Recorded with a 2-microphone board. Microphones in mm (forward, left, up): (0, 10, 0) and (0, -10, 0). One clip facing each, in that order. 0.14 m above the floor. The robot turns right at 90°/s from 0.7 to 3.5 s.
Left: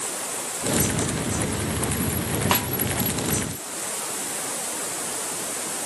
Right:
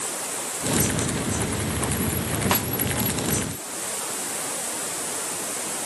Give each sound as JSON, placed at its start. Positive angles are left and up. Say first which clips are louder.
{"t": 2.5, "sound": "a snare drum", "louder": "left 2 dB", "side_deg": 15}